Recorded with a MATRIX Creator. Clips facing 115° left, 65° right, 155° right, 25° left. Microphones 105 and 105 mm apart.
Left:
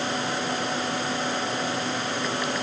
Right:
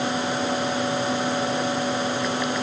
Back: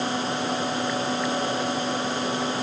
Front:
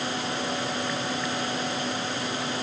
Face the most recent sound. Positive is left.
No sound to turn to.